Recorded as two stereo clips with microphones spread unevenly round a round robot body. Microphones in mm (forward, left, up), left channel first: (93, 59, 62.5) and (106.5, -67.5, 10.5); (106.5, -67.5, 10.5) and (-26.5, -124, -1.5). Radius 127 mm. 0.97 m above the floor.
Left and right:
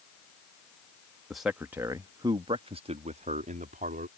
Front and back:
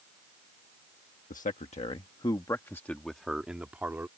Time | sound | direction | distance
1.3 | a man speaking | straight ahead | ?